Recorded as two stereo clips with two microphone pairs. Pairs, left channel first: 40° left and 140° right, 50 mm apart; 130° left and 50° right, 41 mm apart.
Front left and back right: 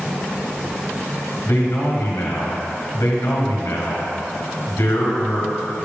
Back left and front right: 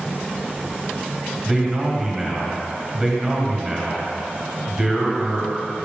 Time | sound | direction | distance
1.4 | a man speaking | 30° left | 1.1 m